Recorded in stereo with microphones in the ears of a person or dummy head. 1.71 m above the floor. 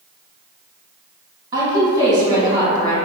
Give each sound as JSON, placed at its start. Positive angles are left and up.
{"t": 1.5, "sound": "a woman speaking", "side_deg": -25, "distance_m": 1.3}